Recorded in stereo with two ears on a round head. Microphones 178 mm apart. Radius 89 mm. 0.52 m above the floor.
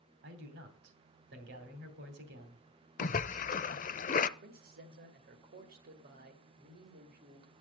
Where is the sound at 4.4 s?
50° right (ahead or behind), 2.5 m.